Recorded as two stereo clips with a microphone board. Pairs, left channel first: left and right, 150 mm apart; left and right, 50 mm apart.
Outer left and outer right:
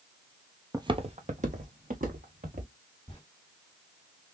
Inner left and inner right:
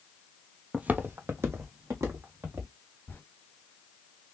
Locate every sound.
0.7 s footsteps: 20° right (ahead or behind), 0.5 m; by 2.7 s 70° right (ahead or behind), 2.5 m
3.1 s a zipper: 35° left (ahead or behind), 2.5 m